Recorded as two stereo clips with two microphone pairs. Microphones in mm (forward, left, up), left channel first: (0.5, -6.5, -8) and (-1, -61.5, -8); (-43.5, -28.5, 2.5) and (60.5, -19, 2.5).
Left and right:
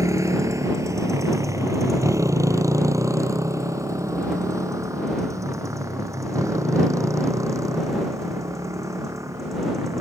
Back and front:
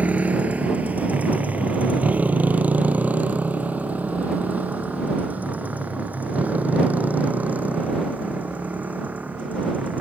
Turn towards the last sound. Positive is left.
turn(degrees=-70)